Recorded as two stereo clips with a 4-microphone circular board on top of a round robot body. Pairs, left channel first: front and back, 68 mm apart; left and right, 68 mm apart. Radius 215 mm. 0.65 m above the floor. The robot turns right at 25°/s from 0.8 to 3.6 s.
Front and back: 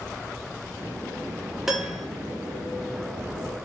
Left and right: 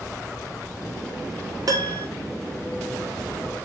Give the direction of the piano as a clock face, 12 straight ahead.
3 o'clock.